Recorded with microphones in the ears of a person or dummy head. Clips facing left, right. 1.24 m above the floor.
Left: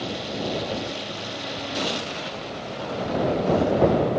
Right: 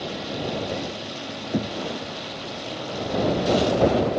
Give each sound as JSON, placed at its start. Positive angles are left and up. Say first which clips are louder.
{"t": 1.5, "sound": "knocking", "louder": "right 5 dB", "side_deg": -75}